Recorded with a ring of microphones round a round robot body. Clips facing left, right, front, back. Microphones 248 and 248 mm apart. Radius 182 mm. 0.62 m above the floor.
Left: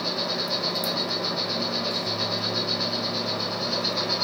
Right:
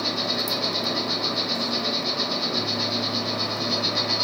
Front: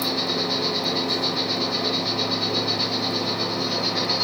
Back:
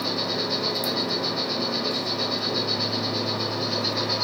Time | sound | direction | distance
0.0 | an insect | 80° right | 2.5 m